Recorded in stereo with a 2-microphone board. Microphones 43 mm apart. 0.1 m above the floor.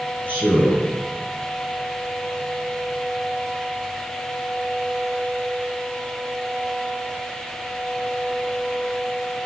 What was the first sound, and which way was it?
A man speaking, 35° left (ahead or behind).